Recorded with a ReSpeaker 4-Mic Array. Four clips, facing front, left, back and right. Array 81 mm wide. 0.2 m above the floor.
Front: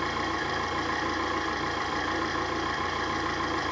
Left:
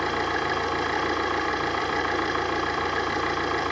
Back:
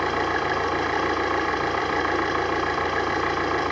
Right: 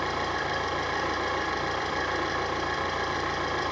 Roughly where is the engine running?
Behind.